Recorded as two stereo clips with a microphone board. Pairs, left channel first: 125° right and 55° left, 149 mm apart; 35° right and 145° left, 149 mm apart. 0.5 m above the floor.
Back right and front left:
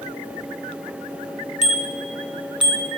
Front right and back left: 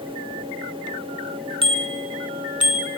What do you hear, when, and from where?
1.6 s a bicycle bell: 95° left, 3.5 m; by 2.9 s 120° left, 3.5 m